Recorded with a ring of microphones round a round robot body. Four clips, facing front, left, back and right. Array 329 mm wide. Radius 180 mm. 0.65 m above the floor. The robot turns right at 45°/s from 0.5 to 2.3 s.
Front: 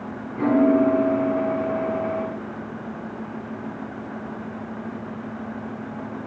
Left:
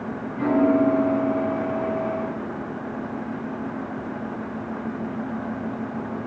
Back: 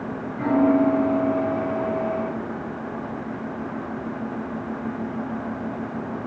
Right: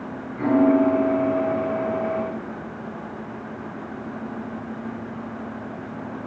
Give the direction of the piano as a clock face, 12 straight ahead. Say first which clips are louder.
Right 2 dB, front 1 dB; 12 o'clock.